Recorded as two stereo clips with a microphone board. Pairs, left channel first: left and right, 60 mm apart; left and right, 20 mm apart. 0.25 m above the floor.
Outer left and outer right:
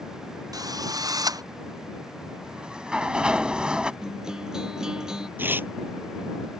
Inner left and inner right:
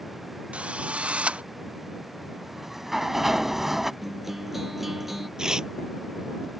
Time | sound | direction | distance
0.5 | a drill | 85° right | ?
2.4 | a sliding door | 15° right (ahead or behind) | ?
4.0 | a guitar | 10° right (ahead or behind) | ?
5.4 | tearing paper | 35° right (ahead or behind) | ?